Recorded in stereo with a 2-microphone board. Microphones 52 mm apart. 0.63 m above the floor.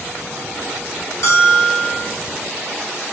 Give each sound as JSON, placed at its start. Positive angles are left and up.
{"t": 1.2, "sound": "a bell", "side_deg": 70, "distance_m": 2.5}